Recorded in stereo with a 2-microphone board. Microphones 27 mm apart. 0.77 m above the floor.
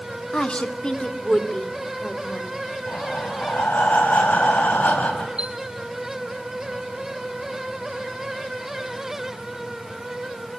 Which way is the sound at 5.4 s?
35° right (ahead or behind).